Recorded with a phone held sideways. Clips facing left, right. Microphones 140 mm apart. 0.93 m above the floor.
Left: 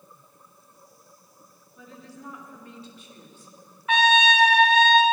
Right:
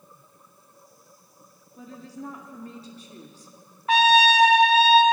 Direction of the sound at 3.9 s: 35° right (ahead or behind).